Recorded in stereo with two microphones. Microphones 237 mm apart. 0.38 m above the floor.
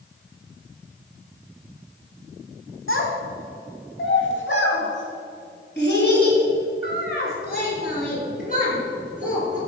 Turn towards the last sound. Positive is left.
turn(degrees=35)  # may be behind; listen again after turning